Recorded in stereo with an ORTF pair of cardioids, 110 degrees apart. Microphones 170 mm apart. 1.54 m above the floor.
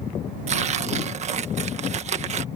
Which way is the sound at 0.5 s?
40° right.